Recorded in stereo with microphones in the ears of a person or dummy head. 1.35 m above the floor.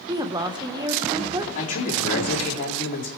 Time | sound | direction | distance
0.1 | a woman speaking | 15° right (ahead or behind) | 0.9 m
1.6 | a man speaking | 55° left (ahead or behind) | 3.5 m